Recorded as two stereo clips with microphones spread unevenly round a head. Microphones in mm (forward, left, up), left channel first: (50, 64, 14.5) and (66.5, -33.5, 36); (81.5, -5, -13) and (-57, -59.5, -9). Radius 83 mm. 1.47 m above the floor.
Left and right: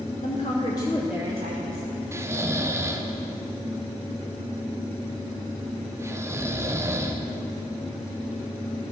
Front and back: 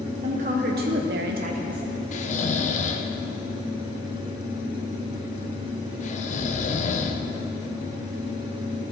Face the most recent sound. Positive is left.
turn(degrees=-20)